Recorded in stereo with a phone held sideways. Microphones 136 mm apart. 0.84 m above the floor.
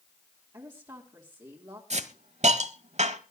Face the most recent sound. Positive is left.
turn(degrees=-65)  # may be behind; listen again after turning